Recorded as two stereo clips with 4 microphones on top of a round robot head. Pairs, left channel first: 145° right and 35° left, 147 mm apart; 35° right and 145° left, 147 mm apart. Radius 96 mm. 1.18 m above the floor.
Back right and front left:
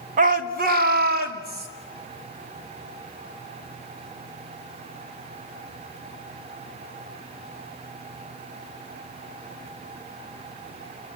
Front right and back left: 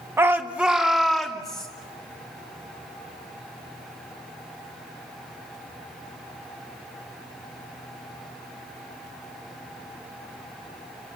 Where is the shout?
70° left, 1.9 m; by 1.7 s 50° left, 4 m.